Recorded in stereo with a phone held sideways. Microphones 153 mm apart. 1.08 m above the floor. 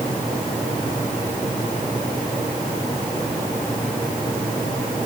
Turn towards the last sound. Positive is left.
No sound to turn to.